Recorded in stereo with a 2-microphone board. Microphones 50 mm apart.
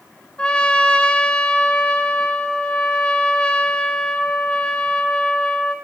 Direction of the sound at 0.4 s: 20° left (ahead or behind).